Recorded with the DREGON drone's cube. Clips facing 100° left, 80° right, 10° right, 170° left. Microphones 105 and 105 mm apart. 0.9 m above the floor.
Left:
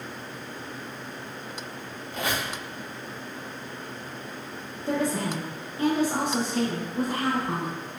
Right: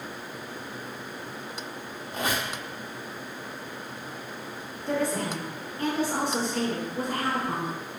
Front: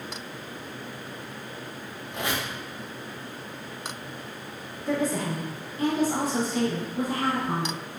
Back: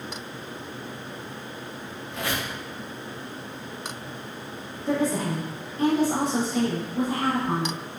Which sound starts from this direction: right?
A squeak, at 2.1 s.